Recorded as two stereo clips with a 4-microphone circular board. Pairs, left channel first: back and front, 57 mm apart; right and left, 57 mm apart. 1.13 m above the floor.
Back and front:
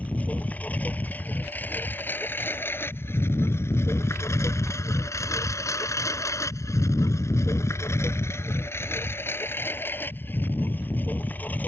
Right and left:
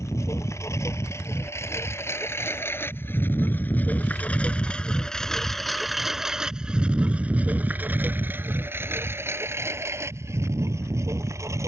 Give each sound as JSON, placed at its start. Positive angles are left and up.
{"t": 0.0, "sound": "a lawn mower", "azimuth_deg": -115}